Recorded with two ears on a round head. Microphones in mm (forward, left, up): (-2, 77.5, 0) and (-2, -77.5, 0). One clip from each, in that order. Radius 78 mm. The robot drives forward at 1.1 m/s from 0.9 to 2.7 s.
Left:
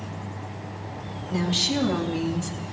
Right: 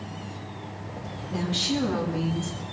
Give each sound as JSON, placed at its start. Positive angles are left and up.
{"t": 1.3, "sound": "a woman speaking", "side_deg": 30, "distance_m": 4.0}